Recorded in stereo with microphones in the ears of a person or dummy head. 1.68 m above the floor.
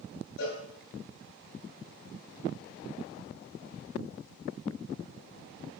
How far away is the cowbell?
About 6.5 m.